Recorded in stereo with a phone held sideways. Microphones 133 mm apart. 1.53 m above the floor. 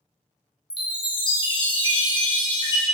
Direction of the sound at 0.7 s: 35° left (ahead or behind).